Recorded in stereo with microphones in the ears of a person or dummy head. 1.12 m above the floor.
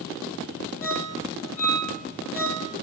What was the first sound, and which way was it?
A ringtone, 35° left (ahead or behind).